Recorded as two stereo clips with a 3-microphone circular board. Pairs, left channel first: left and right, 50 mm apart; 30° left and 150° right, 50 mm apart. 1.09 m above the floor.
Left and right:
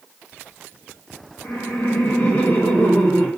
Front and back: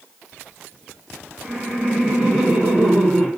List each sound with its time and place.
1.4 s laughter: 135° left, 1.5 m